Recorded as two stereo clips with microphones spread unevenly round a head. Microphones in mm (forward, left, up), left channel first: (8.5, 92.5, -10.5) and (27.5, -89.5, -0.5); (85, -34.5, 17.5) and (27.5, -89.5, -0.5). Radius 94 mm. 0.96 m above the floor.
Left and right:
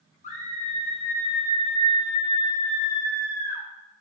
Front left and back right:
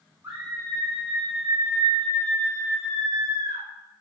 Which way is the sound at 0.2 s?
150° left.